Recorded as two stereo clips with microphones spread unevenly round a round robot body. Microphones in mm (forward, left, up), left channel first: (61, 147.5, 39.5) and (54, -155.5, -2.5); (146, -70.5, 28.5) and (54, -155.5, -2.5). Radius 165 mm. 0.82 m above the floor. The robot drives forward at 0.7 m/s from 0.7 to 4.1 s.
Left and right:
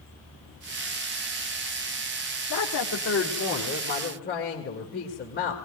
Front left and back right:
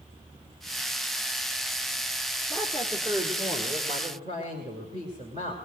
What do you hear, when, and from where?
2.5 s a woman speaking: 135° left, 1.5 m; by 5.6 s 155° left, 2.5 m